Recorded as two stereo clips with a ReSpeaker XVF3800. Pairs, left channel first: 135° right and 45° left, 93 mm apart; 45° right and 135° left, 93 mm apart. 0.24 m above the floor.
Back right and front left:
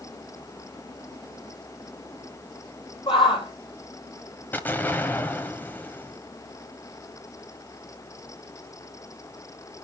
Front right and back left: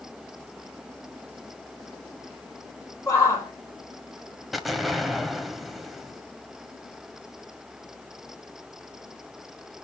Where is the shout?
100° right, 8 m.